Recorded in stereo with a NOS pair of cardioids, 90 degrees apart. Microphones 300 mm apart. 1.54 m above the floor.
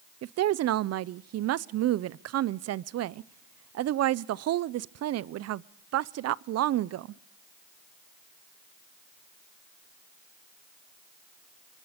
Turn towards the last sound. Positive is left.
turn(degrees=-55)